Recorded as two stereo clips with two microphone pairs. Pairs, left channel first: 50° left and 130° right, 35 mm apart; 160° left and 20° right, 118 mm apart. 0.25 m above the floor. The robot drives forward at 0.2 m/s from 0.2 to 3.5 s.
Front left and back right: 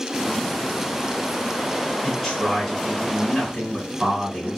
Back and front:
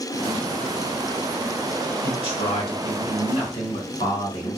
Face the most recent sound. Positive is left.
turn(degrees=145)